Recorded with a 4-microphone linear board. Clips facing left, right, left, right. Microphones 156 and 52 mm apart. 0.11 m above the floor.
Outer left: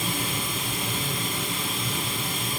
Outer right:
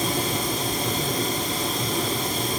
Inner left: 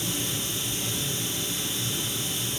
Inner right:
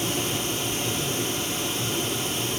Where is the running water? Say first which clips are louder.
Outer right 5 dB, inner right 5 dB; 40° right (ahead or behind), 1.9 m.